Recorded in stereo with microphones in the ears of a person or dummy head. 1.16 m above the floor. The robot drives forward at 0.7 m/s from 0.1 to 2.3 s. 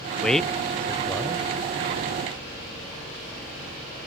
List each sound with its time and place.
0.2 s a man speaking: 10° left (ahead or behind), 0.5 m; by 1.5 s 5° left (ahead or behind), 0.7 m